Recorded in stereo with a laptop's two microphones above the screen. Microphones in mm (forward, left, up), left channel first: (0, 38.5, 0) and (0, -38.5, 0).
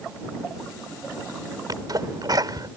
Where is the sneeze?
60° right (ahead or behind).